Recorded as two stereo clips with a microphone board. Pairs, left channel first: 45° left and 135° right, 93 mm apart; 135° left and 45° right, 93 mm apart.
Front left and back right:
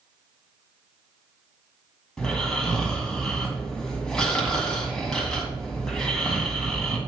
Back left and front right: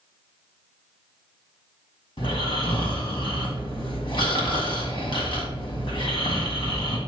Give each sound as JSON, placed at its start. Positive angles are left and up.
{"t": 2.2, "sound": "snoring", "azimuth_deg": 130, "distance_m": 2.0}